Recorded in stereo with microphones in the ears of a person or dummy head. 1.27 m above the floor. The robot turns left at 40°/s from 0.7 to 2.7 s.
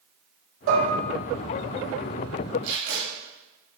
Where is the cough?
I don't hear a cough.